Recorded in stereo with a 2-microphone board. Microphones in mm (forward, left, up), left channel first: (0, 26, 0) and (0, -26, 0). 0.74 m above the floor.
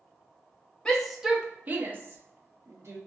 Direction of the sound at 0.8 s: 15° left (ahead or behind).